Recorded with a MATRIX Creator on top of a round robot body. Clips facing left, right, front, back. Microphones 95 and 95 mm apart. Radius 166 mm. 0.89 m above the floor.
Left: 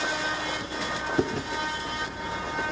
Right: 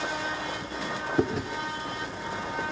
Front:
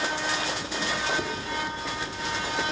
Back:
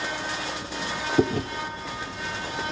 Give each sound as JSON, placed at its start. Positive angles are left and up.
{"t": 1.2, "sound": "chewing", "azimuth_deg": -175, "distance_m": 0.6}